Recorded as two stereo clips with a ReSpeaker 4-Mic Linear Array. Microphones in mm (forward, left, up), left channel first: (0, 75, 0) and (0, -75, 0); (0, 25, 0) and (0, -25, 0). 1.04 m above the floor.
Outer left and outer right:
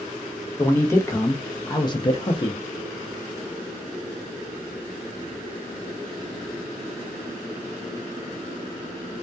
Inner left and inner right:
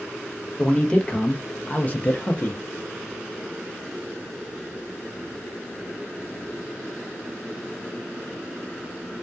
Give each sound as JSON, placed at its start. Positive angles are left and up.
{"t": 0.6, "sound": "a man speaking", "side_deg": 15, "distance_m": 0.9}